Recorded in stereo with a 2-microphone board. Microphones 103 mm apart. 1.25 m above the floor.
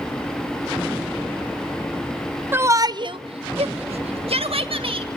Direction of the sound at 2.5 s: 20° right (ahead or behind).